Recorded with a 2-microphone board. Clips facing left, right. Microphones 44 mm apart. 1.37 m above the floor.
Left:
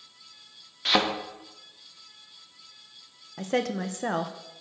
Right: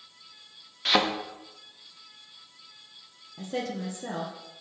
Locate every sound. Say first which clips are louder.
0.8 s a thud: even; centre (ahead or behind), 0.8 m
3.4 s a woman speaking: left 5 dB; 65° left (ahead or behind), 0.6 m